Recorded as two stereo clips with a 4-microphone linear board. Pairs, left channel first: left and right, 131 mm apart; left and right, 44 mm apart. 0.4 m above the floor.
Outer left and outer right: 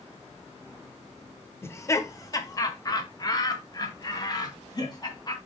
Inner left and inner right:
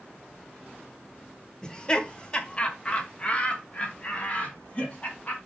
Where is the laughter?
20° left (ahead or behind), 1.0 m; by 5.4 s 30° left (ahead or behind), 3.5 m.